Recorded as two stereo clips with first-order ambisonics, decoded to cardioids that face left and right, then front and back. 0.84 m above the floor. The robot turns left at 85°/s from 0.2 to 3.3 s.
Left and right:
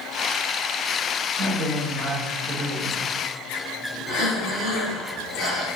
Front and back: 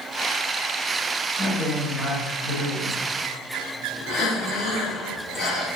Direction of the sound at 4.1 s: 25° left.